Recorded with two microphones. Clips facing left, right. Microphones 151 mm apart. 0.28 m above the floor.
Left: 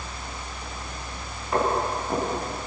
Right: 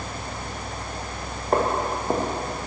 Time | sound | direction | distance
1.5 | footsteps | 45° right (ahead or behind) | 5 m